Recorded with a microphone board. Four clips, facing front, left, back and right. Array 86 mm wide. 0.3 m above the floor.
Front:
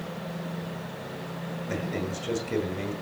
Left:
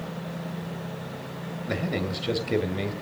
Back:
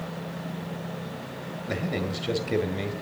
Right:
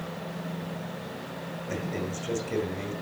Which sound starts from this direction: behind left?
A man speaking, at 1.7 s.